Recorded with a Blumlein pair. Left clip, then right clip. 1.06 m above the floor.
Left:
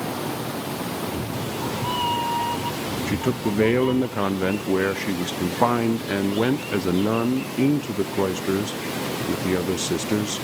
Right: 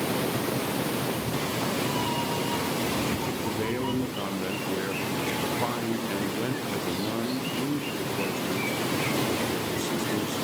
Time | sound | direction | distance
1.0 | a cat meowing | 45° left | 2.5 m
3.1 | a man speaking | 60° left | 0.6 m